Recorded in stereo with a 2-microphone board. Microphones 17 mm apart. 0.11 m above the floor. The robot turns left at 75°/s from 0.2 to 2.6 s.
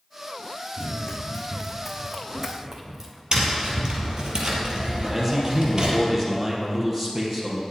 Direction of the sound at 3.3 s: 45° right (ahead or behind).